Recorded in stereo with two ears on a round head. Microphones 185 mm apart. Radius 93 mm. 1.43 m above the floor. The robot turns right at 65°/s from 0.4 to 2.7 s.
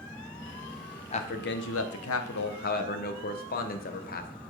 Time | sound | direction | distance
1.1 | a man speaking | 30° left | 0.8 m